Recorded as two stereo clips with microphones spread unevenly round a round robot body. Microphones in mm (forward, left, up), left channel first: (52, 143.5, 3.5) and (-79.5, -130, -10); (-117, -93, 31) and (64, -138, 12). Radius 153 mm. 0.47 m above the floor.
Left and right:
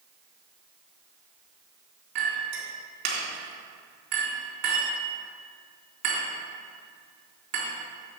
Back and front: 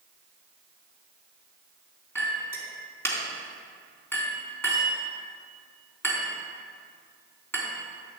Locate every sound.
2.1 s a clink: 115° right, 3.5 m